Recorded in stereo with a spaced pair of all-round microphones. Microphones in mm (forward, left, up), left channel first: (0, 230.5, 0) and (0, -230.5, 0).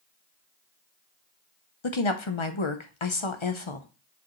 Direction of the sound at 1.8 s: 80° left.